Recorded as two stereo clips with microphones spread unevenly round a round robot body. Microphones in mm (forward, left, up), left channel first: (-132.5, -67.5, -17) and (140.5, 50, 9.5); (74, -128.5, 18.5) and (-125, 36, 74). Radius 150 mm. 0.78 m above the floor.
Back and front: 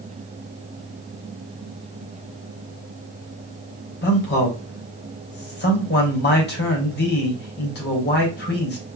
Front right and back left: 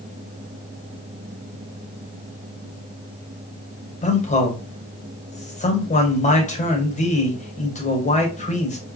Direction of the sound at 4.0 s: 100° right.